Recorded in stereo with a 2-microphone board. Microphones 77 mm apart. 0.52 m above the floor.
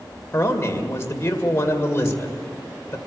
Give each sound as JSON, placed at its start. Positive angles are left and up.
{"t": 0.3, "sound": "a man speaking", "side_deg": 35, "distance_m": 2.0}